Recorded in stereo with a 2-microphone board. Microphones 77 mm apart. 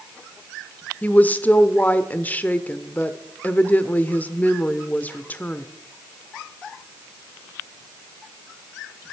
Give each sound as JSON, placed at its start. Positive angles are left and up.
{"t": 1.0, "sound": "a woman speaking", "side_deg": 20, "distance_m": 0.9}